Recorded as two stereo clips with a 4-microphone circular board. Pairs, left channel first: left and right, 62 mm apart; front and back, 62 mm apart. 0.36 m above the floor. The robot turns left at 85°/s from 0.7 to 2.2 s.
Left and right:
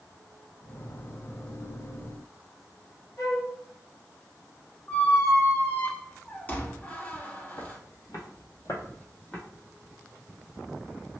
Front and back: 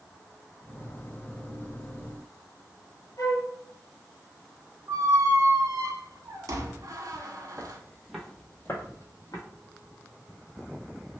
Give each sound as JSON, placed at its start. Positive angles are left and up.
{"t": 3.2, "sound": "a flute", "azimuth_deg": 40, "distance_m": 1.6}
{"t": 4.9, "sound": "a squeak", "azimuth_deg": 155, "distance_m": 0.6}
{"t": 7.6, "sound": "footsteps", "azimuth_deg": 120, "distance_m": 1.0}